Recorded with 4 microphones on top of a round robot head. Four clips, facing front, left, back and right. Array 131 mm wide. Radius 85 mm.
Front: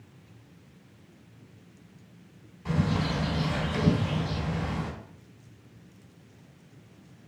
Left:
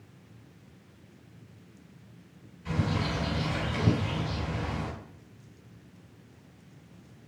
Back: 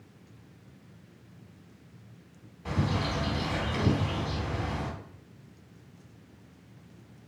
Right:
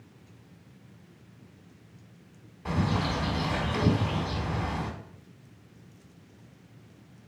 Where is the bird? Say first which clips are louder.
Right 2 dB, front 2 dB; 105° right, 2 m.